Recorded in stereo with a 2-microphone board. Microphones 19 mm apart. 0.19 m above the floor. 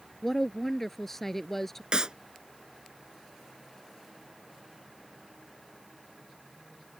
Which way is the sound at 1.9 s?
45° right (ahead or behind).